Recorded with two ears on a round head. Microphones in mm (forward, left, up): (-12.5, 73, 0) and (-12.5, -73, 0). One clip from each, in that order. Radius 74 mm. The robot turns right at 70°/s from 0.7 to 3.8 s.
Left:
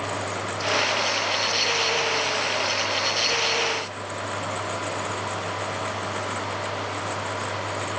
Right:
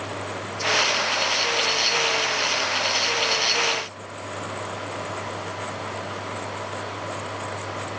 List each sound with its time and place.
Only background noise.